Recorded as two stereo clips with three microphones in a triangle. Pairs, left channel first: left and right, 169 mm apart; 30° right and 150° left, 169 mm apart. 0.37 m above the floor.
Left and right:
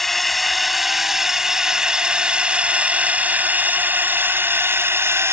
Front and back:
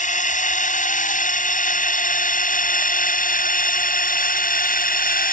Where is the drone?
Straight ahead; by 5.3 s 15° right.